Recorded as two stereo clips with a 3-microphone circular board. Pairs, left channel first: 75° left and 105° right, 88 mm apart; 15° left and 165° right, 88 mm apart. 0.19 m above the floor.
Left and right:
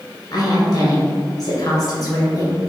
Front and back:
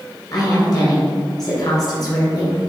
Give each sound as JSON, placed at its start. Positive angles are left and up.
{"t": 0.3, "sound": "a woman speaking", "azimuth_deg": 45, "distance_m": 1.9}